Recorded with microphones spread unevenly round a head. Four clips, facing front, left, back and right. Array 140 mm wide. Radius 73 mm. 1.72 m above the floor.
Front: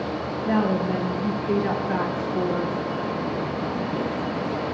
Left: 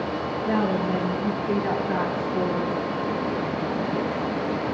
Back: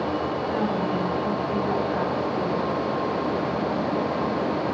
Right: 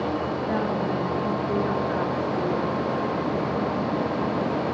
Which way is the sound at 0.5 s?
45° left.